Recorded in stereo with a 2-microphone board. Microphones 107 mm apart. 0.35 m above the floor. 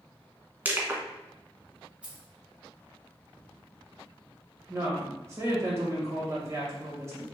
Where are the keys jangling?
10° right (ahead or behind), 1.1 m.